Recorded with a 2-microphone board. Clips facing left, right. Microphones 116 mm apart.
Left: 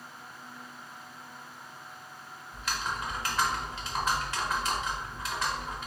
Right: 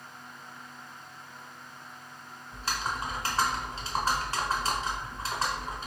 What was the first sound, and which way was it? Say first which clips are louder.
Typing on a keyboard: right 1 dB; 35° right (ahead or behind).